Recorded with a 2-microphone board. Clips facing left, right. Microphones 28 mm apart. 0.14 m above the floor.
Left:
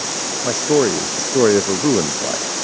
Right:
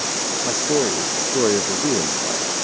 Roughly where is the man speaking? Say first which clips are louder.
Left 5 dB; left.